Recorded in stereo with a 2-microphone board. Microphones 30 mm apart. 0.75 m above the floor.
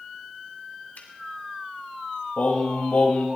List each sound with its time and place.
0.9 s a finger snap: 75° left (ahead or behind), 2.5 m
2.4 s singing: 65° left (ahead or behind), 3 m